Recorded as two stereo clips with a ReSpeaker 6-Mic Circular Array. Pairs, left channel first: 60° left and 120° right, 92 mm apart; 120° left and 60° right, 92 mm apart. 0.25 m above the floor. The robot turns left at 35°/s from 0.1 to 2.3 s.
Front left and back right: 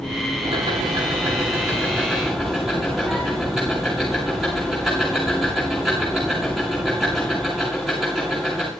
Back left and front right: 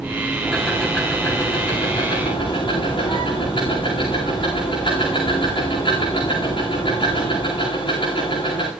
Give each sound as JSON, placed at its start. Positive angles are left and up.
{"t": 0.4, "sound": "ticking", "azimuth_deg": -145, "distance_m": 8.0}